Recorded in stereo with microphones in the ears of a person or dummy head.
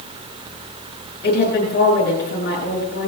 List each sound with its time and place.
1.2 s a woman speaking: 55° left (ahead or behind), 7 m